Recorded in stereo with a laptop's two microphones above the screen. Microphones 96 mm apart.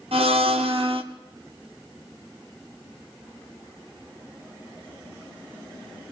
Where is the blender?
75° right (ahead or behind), 1.2 m.